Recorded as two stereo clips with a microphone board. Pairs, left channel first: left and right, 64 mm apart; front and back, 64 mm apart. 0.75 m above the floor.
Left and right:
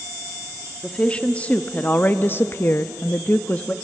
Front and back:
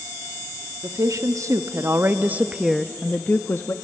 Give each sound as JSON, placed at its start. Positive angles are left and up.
{"t": 0.8, "sound": "a woman speaking", "azimuth_deg": 165, "distance_m": 1.2}